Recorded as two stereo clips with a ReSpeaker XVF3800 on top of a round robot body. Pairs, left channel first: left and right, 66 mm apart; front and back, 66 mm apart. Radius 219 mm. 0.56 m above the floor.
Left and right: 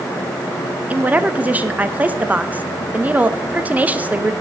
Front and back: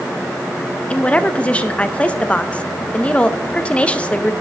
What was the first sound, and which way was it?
A woman speaking, 50° right.